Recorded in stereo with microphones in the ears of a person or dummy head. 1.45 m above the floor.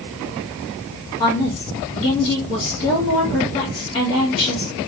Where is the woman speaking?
30° left (ahead or behind), 1.7 m.